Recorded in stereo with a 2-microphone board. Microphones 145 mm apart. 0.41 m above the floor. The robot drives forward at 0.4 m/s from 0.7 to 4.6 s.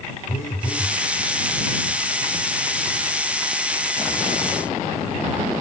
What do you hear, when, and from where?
0.3 s a phone buzzing: 70° left (ahead or behind), 6 m; by 1.0 s 75° left (ahead or behind), 6 m